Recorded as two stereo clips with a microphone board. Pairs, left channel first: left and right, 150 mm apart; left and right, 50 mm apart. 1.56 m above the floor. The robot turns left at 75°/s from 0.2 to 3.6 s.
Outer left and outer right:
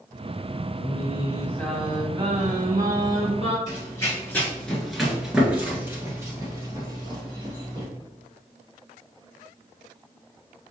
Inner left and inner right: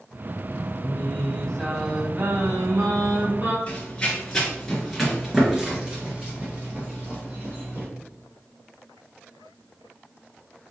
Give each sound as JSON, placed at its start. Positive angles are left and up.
{"t": 0.8, "sound": "singing", "azimuth_deg": 70, "distance_m": 1.3}
{"t": 3.7, "sound": "running footsteps", "side_deg": 25, "distance_m": 1.6}